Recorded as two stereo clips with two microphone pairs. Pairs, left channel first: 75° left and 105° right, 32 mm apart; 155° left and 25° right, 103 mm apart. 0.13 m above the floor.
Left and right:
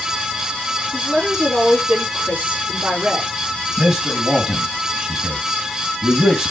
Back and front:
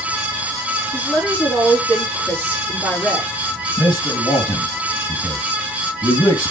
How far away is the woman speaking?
About 4 m.